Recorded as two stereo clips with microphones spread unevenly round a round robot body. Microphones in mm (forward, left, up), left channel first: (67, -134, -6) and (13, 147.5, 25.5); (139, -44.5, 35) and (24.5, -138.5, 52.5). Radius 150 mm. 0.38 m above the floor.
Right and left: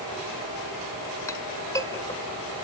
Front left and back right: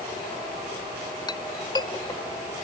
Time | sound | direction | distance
1.3 | a clink | 5° right | 1.0 m